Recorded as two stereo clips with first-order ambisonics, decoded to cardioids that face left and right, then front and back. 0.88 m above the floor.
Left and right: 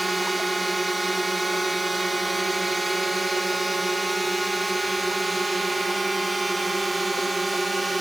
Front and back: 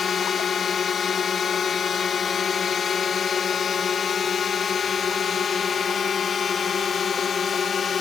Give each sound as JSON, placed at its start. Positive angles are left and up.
{"t": 0.0, "sound": "a drone", "azimuth_deg": -20}